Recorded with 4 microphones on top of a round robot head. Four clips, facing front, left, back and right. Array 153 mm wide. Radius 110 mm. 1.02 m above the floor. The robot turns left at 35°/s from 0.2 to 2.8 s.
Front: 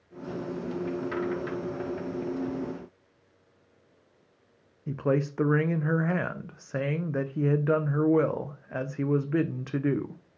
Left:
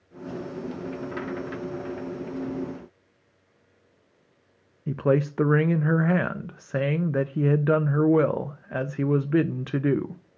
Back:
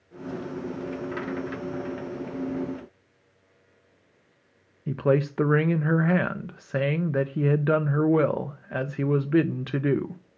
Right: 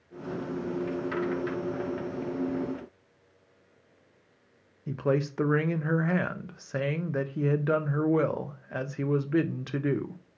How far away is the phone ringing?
I don't hear a phone ringing.